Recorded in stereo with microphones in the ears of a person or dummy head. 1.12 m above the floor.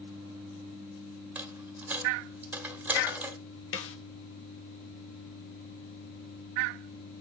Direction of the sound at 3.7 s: 65° left (ahead or behind).